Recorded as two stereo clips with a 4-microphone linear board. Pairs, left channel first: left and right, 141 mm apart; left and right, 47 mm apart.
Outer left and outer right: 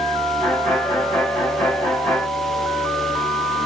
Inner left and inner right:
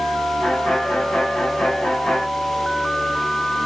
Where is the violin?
Centre (ahead or behind), 2 m.